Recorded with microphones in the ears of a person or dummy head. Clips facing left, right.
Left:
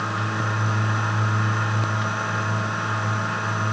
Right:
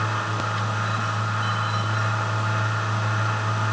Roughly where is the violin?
No violin in this recording.